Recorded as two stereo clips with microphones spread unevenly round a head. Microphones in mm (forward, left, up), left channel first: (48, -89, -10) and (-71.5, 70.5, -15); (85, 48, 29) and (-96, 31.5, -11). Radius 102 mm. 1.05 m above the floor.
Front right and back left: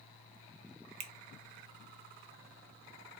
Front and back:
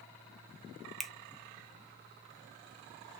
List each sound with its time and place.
1.0 s a finger snap: 120° left, 0.5 m